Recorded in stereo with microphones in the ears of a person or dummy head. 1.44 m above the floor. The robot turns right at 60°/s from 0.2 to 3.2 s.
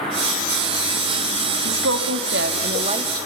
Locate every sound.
1.6 s a woman speaking: 115° right, 2.5 m; by 3.3 s 20° right, 2.5 m